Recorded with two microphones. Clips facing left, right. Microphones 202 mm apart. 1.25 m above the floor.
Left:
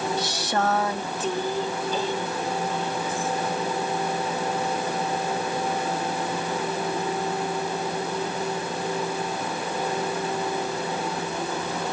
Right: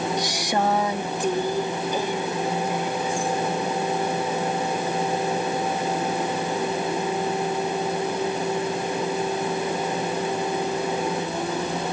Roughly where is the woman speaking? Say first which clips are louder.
Right 2 dB; centre.